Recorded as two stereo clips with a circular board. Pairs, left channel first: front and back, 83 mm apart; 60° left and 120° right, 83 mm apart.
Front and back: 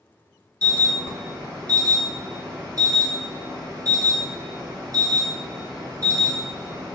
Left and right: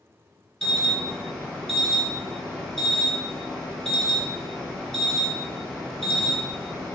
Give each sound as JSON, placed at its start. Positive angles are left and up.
{"t": 0.6, "sound": "an alarm", "azimuth_deg": 145, "distance_m": 1.6}